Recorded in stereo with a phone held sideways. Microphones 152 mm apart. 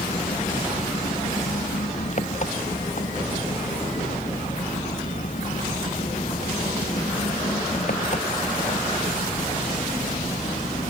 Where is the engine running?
50° left (ahead or behind).